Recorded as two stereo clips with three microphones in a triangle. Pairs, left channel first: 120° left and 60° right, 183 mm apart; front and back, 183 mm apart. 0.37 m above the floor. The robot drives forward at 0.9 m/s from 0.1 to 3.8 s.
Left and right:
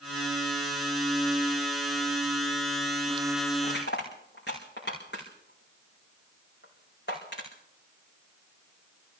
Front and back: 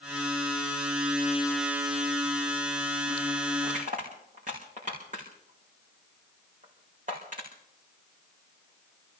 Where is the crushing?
135° left, 6 m.